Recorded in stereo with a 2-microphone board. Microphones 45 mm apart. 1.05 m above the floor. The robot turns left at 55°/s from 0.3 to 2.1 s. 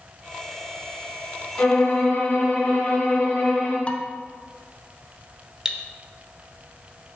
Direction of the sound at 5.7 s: 15° right (ahead or behind).